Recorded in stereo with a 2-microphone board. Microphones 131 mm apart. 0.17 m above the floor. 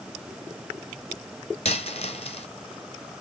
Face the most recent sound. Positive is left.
turn(degrees=50)  # may be behind; listen again after turning